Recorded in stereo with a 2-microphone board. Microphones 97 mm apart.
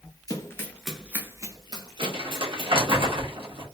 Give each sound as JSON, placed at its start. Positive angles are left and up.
{"t": 0.3, "sound": "running footsteps", "side_deg": 35, "distance_m": 1.1}
{"t": 2.0, "sound": "crumpling", "side_deg": -55, "distance_m": 1.5}